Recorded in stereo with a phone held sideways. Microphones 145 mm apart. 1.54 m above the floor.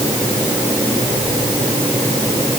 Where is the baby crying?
No baby crying in this recording.